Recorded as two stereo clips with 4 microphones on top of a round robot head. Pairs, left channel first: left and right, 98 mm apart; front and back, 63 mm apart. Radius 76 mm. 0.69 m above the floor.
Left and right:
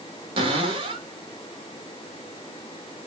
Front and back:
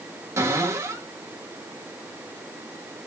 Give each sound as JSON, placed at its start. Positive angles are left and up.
{"t": 0.4, "sound": "a cupboard door", "azimuth_deg": -130, "distance_m": 1.3}